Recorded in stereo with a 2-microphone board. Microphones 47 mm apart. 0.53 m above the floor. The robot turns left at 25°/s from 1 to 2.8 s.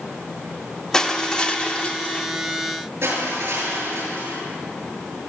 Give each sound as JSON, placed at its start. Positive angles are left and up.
{"t": 0.9, "sound": "crushing", "azimuth_deg": 160, "distance_m": 1.3}
{"t": 3.0, "sound": "crushing", "side_deg": -55, "distance_m": 8.5}